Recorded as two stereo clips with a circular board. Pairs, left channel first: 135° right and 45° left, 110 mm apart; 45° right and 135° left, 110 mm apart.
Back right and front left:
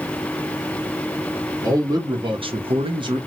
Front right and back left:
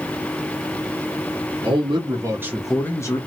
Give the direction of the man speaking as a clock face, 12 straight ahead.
9 o'clock.